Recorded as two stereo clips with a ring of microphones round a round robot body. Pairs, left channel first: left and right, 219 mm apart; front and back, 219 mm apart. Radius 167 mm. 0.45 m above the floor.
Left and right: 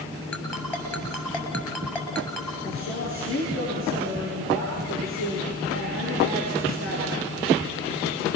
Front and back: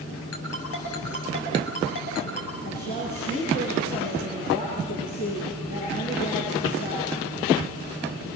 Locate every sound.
0.3 s a ringtone: 10° left, 8 m
2.6 s a woman speaking: 65° left, 9 m